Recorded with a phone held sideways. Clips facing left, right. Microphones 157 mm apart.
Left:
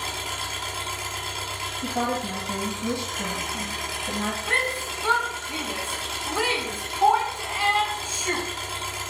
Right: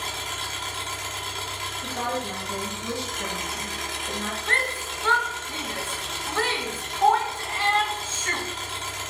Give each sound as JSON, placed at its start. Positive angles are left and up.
{"t": 0.0, "sound": "an engine running", "side_deg": 10, "distance_m": 1.2}
{"t": 1.8, "sound": "a woman speaking", "side_deg": 35, "distance_m": 1.1}
{"t": 4.5, "sound": "a shout", "side_deg": 10, "distance_m": 0.7}